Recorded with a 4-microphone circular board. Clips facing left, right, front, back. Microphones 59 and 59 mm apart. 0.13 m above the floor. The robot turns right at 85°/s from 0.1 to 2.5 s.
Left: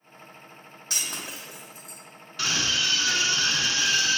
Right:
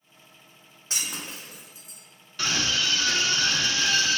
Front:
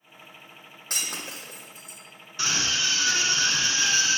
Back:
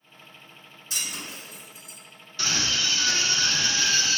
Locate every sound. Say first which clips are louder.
0.9 s breaking glass: even, front 1 dB; 30° right, 2 m; by 2.0 s 65° left, 2 m
2.4 s a scream: even, even; 5° left, 1.1 m; by 4.2 s 15° left, 1.1 m